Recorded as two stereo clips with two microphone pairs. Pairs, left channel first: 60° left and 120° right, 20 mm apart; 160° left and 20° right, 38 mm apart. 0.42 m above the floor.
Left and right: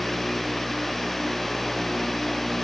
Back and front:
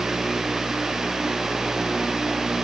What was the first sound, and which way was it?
Only background noise.